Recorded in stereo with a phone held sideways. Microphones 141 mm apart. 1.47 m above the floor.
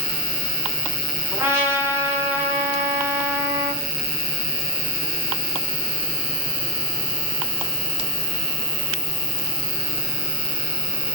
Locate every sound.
0.0 s an insect: 35° left (ahead or behind), 1.8 m
1.3 s a trumpet: 15° right (ahead or behind), 0.7 m